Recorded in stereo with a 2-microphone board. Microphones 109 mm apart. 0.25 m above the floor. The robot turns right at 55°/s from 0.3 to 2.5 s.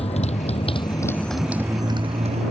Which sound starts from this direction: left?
A motorcycle, at 0.0 s.